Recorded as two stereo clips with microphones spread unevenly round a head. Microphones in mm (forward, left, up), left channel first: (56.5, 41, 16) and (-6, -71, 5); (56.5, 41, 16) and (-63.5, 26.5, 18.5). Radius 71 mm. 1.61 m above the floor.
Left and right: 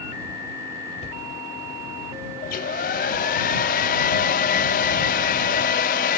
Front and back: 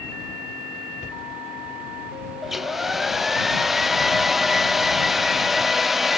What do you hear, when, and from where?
1.0 s a cupboard door: 30° left
2.4 s a hair dryer: 100° left